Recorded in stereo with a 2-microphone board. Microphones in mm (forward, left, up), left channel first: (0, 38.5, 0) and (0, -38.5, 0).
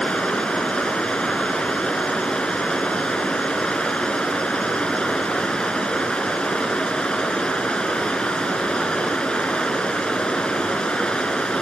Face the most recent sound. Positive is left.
turn(degrees=10)  # may be behind; listen again after turning